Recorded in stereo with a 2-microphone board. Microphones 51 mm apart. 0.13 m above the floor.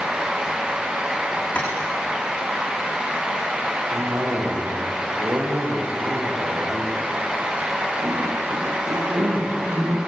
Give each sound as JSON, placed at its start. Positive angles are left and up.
{"t": 1.6, "sound": "tapping", "side_deg": 20, "distance_m": 9.0}
{"t": 3.9, "sound": "a cough", "side_deg": -65, "distance_m": 8.5}